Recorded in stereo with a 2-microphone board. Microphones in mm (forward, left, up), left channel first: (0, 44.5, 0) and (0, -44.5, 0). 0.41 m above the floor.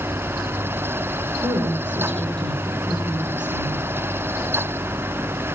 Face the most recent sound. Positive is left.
turn(degrees=-55)  # may be behind; listen again after turning